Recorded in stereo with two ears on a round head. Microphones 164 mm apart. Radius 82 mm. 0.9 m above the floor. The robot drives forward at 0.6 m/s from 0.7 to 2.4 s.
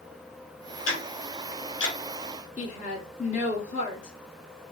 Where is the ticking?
85° left, 2 m; by 2.0 s 70° left (ahead or behind), 2 m.